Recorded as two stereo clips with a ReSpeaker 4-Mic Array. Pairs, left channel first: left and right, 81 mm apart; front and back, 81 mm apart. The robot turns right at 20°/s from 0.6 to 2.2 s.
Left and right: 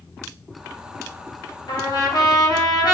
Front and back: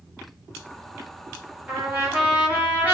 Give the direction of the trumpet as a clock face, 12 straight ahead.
9 o'clock.